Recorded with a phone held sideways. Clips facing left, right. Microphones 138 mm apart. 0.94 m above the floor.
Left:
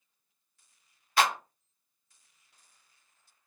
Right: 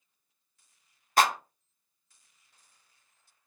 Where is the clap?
45° right (ahead or behind), 0.7 m.